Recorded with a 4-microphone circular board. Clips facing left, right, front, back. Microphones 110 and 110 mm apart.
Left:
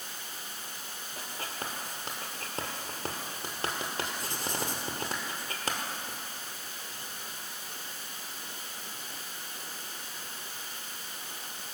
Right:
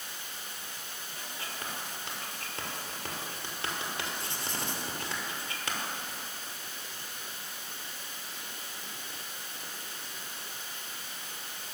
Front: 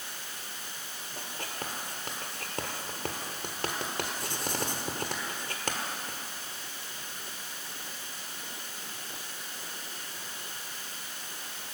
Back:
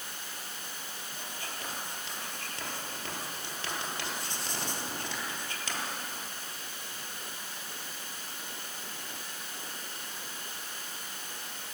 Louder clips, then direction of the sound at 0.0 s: Left 1 dB, even; 140° left.